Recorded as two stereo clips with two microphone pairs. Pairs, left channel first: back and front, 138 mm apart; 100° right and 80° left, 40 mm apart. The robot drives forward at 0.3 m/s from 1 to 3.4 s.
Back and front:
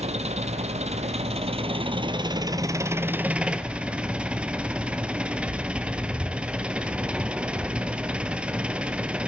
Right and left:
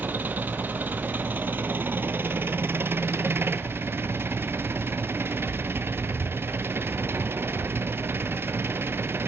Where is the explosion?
I don't hear an explosion.